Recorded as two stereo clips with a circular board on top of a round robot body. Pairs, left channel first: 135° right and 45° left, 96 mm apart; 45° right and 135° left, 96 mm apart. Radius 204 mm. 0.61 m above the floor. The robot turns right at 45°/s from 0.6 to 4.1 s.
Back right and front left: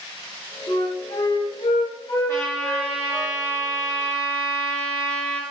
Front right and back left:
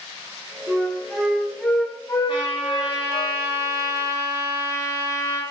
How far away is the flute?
About 1.1 m.